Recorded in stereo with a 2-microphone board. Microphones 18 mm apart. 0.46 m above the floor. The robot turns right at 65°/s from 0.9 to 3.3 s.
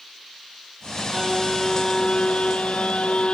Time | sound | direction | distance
1.1 | a violin | 20° right | ?